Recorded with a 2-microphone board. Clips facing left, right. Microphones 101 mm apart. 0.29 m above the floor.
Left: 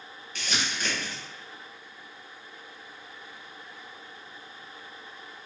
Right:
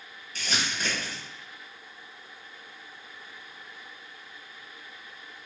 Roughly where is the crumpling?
Right.